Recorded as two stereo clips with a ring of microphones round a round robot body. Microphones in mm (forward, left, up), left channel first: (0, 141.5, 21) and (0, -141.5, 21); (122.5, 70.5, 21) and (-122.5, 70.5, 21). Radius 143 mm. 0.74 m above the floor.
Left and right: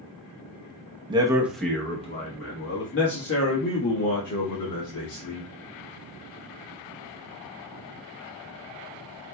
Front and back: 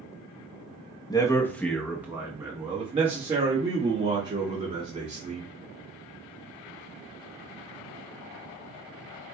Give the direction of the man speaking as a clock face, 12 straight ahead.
2 o'clock.